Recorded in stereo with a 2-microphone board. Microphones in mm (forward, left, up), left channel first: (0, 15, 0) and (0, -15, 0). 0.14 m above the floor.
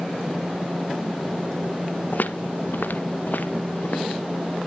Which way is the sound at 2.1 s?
65° left (ahead or behind).